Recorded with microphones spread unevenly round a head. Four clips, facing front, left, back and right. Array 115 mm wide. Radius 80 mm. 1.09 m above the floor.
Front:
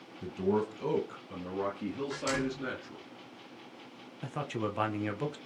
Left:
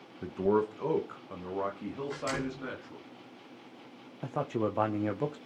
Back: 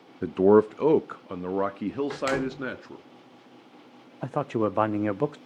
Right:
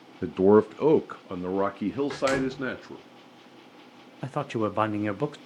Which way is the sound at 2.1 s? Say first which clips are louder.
Right 9 dB, back 5 dB; 160° right.